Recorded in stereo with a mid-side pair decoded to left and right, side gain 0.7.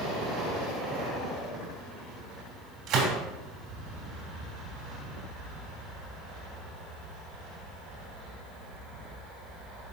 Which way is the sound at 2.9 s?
45° right.